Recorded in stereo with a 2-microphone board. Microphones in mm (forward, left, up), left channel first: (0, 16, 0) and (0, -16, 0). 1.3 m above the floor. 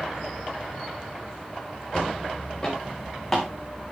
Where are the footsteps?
25° left (ahead or behind), 5.5 m; by 3.5 s 10° left (ahead or behind), 4.5 m.